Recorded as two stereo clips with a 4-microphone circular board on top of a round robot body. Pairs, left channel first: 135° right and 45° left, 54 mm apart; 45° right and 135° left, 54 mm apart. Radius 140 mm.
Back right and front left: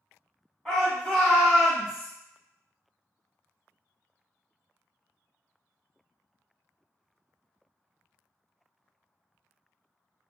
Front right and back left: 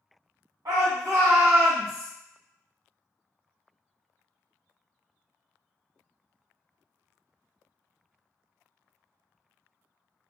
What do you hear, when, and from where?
0.7 s a shout: 150° left, 1.7 m; by 2.1 s 125° left, 1.2 m